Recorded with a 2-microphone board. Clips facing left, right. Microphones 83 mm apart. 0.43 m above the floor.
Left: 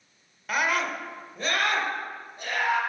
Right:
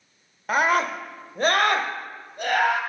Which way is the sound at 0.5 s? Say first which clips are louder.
Right 5 dB; 35° right (ahead or behind).